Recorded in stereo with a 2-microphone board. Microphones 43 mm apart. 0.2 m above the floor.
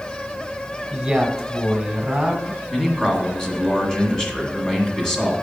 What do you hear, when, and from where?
0.9 s a man speaking: 10° right (ahead or behind), 1.4 m
2.7 s a man speaking: 15° left (ahead or behind), 1.6 m